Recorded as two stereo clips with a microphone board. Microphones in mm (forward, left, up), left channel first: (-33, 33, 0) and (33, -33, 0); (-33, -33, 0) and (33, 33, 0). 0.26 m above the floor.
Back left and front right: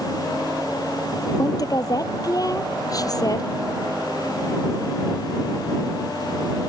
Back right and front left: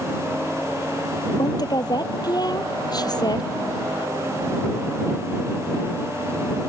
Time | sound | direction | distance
1.4 | a woman speaking | 175° right | ?